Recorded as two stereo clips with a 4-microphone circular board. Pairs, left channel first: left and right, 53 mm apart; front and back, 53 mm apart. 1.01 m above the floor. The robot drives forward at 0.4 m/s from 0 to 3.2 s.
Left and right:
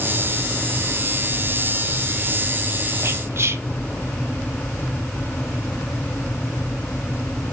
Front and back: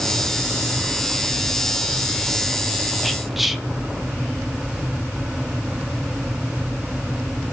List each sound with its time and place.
3.0 s whispering: 90° right, 1.0 m; by 3.6 s 95° right, 1.0 m